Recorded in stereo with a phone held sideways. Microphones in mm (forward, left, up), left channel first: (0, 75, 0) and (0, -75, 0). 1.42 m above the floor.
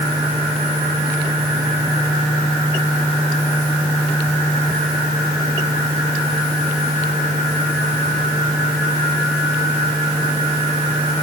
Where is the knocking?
No knocking in this recording.